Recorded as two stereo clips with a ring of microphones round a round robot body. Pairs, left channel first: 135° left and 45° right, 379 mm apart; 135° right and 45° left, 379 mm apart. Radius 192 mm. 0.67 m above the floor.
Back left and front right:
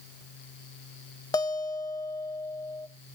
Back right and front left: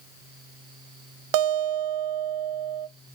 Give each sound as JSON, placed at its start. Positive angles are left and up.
{"t": 1.3, "sound": "a guitar", "azimuth_deg": 55, "distance_m": 0.6}